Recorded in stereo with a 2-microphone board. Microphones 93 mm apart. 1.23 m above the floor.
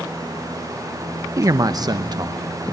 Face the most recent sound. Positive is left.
turn(degrees=-45)  # may be behind; listen again after turning